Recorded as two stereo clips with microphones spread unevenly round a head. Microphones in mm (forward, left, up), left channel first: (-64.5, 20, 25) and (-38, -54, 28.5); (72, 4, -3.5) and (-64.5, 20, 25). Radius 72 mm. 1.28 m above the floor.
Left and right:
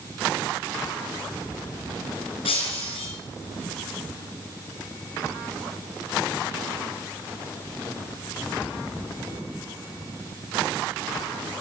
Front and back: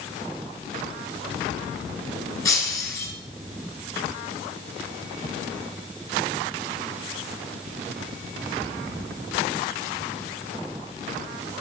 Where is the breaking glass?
65° left, 6 m.